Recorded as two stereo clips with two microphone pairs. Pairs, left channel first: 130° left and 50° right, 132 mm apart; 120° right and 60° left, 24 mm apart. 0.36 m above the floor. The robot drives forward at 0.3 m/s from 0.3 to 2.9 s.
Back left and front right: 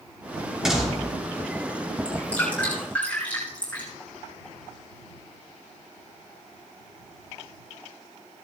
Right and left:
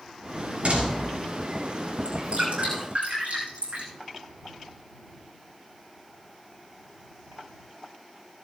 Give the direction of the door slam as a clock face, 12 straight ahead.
11 o'clock.